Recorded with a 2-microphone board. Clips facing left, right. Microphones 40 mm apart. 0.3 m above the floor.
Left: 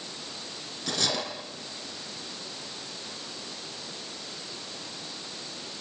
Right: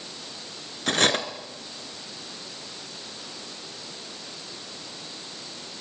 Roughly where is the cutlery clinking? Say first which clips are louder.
Right 7 dB; right.